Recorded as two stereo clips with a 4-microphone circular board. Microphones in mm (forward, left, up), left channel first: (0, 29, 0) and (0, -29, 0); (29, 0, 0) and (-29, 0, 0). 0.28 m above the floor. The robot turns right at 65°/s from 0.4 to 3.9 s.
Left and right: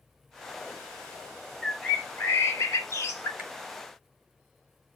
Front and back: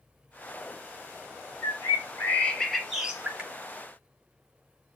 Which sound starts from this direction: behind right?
A finger snap, at 3.4 s.